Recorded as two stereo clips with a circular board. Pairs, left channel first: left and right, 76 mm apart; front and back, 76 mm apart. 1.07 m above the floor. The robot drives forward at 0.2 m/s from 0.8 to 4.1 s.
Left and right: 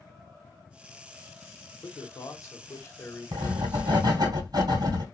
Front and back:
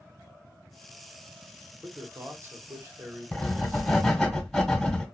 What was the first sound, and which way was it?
A man speaking, 120° left.